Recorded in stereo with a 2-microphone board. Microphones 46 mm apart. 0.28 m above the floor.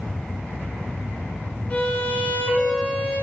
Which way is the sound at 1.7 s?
35° left (ahead or behind).